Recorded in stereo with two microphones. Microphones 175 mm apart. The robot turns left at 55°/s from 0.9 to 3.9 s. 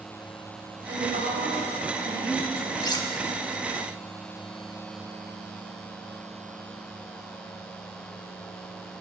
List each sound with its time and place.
0.9 s a woman speaking: 75° right, 2.5 m; by 2.7 s 175° right, 2.5 m
2.8 s cutlery clinking: 20° left (ahead or behind), 0.5 m; by 3.1 s 30° left (ahead or behind), 0.5 m